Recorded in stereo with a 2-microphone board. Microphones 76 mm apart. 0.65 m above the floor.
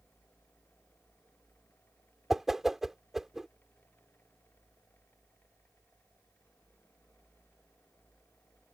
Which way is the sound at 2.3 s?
5° right (ahead or behind).